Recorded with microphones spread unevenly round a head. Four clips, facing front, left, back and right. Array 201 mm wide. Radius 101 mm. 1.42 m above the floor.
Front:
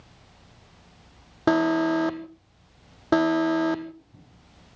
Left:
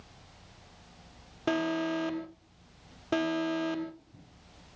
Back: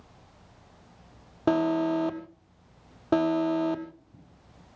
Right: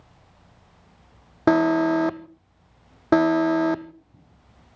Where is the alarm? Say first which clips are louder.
Right 11 dB, front 3 dB; 75° right, 1.2 m.